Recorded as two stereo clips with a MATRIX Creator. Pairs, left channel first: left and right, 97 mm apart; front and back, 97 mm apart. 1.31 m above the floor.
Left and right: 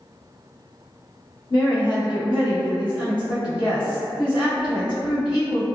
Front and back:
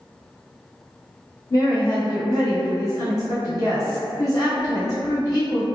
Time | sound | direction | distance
1.5 | a woman speaking | 55° left | 1.2 m